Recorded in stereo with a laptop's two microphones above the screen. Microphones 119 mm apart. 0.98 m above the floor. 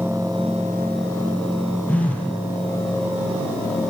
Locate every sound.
1.9 s a phone buzzing: 10° left (ahead or behind), 7.5 m